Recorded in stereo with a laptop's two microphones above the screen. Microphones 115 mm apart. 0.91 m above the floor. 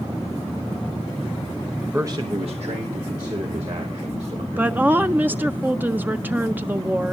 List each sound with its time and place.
1.8 s a man speaking: 5° right (ahead or behind), 0.6 m; by 5.6 s 85° right, 4.5 m
4.6 s a woman speaking: 15° right (ahead or behind), 0.5 m